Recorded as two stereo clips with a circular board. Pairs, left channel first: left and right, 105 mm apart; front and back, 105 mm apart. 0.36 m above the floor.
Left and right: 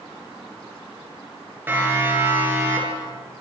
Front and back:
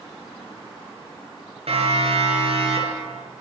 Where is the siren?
160° right, 9.5 m; by 3.4 s 155° right, 10 m.